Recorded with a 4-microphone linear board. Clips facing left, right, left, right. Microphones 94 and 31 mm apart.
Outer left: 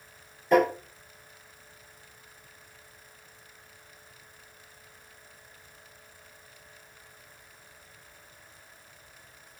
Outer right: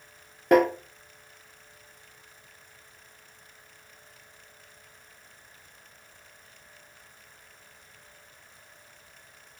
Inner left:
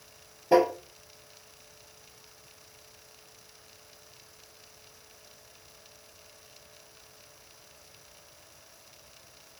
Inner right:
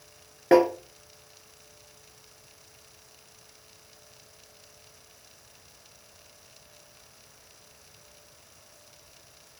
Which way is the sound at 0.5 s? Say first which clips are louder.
Outer right 2 dB, inner right 3 dB; 70° right (ahead or behind).